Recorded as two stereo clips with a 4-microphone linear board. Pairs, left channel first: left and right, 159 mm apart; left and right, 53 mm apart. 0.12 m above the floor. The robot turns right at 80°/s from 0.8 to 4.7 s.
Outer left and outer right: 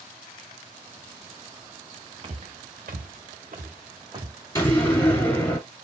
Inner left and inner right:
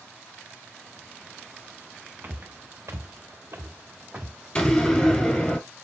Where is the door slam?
20° left (ahead or behind), 1.1 m; by 5.6 s 10° left (ahead or behind), 1.1 m.